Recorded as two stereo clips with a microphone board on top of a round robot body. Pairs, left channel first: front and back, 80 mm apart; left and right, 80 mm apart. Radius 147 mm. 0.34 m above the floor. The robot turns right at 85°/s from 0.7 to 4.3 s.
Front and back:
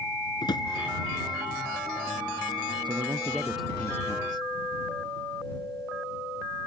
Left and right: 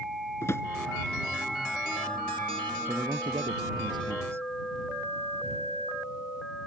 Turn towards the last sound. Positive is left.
turn(degrees=-30)